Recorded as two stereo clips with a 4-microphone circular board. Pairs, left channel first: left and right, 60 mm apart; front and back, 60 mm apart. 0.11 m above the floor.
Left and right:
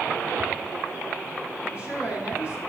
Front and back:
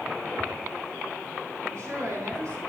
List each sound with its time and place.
1.6 s a woman speaking: 155° right, 5 m